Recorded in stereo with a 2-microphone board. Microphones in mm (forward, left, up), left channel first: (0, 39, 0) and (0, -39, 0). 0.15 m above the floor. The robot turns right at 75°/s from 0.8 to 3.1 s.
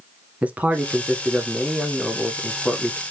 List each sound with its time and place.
0.4 s a man speaking: 20° right (ahead or behind), 1.0 m; by 3.0 s 20° left (ahead or behind), 1.0 m